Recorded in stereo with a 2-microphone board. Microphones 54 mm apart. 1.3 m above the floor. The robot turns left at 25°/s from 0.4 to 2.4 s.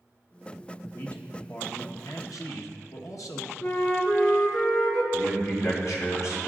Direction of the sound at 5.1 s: 65° left (ahead or behind).